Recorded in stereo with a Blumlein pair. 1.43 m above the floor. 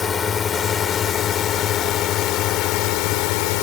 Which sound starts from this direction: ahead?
A drone, at 0.0 s.